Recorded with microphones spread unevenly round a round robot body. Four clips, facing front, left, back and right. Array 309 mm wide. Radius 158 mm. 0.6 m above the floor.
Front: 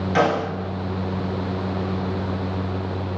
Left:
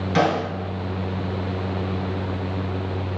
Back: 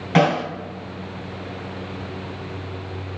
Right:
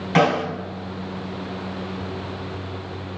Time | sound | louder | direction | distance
0.1 | a snare drum | right 2 dB, back 2 dB | 160° right | 1.8 m